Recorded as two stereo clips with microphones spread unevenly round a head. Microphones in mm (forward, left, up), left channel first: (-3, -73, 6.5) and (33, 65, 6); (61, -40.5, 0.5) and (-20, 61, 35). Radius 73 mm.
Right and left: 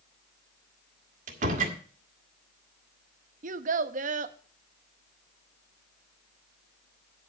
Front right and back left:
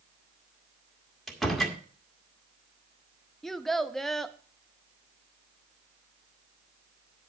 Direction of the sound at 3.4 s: 40° left.